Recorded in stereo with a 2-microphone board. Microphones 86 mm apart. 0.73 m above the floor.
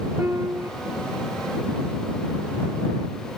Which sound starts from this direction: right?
A piano, at 0.2 s.